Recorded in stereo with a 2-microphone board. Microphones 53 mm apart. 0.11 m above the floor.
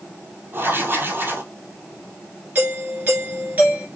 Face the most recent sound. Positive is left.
turn(degrees=-35)  # may be behind; listen again after turning